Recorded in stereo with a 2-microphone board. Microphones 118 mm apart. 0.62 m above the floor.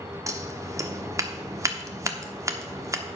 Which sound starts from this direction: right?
Scissors, at 0.3 s.